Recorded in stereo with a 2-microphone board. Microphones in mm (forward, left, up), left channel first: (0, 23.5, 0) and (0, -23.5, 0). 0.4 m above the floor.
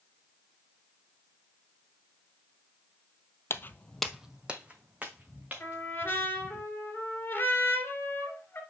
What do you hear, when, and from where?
3.5 s footsteps: 60° left (ahead or behind), 0.6 m; by 6.6 s 40° right (ahead or behind), 4 m
5.6 s a trumpet: 45° left (ahead or behind), 2.5 m